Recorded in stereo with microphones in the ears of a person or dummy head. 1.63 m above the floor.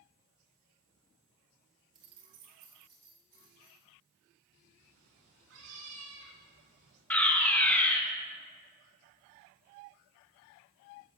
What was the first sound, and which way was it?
Keys jangling, 20° right (ahead or behind).